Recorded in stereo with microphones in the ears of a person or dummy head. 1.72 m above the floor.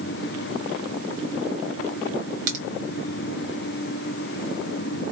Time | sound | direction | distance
2.5 | a crack | 55° right (ahead or behind) | 1.4 m